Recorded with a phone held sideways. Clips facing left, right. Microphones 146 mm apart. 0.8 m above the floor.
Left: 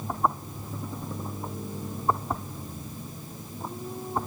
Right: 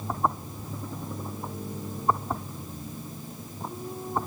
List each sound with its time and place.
Only background noise.